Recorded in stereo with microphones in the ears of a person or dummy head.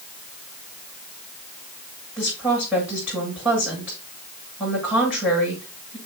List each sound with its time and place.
2.2 s a woman speaking: 5° right (ahead or behind), 8 m